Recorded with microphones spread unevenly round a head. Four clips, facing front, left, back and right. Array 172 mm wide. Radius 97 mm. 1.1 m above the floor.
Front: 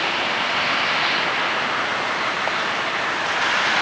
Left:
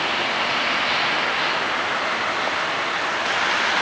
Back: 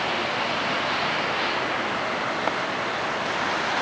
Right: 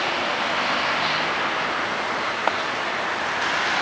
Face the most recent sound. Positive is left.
No sound to turn to.